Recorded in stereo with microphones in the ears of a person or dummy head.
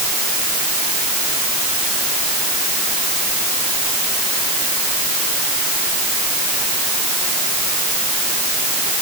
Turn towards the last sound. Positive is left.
No sound to turn to.